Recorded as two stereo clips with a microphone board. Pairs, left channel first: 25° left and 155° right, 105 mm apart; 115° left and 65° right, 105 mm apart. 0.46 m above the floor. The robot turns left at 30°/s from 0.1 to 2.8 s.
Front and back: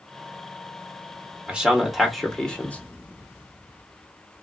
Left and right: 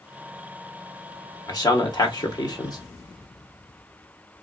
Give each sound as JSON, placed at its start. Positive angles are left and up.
{"t": 1.5, "sound": "a man speaking", "azimuth_deg": 130, "distance_m": 1.0}